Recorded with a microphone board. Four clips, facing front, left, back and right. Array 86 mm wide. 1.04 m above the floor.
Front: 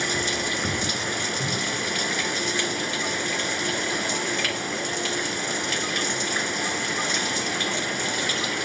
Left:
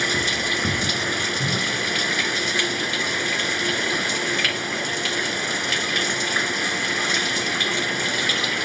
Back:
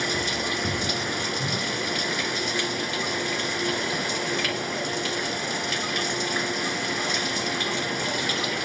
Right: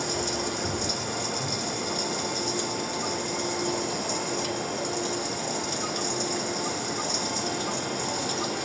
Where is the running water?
85° left.